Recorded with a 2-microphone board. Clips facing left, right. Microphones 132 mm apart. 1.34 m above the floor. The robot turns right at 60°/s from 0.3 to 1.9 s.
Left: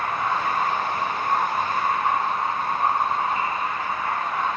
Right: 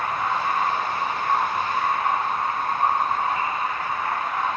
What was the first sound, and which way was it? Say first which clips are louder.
Running water: even; 160° right.